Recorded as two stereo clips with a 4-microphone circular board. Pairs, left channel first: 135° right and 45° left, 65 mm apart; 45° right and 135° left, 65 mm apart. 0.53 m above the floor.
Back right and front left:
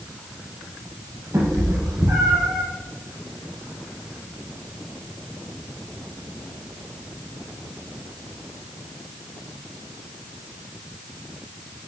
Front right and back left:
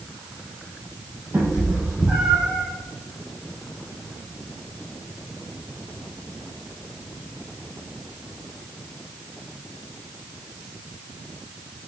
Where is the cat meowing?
70° left, 4.5 m; by 2.6 s 60° left, 5 m.